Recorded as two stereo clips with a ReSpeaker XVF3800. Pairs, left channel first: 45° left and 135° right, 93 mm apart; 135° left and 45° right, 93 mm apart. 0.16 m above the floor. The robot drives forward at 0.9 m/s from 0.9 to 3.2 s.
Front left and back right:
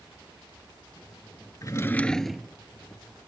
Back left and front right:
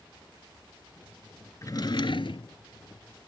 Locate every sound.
1.6 s a drawer: 85° left; by 2.6 s 145° left